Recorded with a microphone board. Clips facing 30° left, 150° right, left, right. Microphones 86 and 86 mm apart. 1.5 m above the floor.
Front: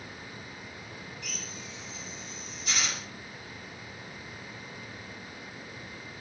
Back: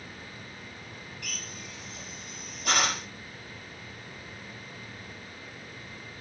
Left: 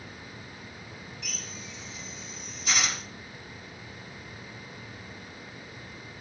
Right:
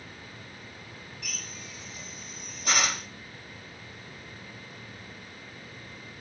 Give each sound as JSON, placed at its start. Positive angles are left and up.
{"t": 1.2, "sound": "a drill", "azimuth_deg": -125, "distance_m": 4.0}